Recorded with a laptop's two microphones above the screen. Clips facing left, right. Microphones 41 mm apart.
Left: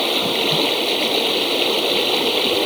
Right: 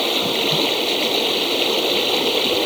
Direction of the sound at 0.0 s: 5° left (ahead or behind).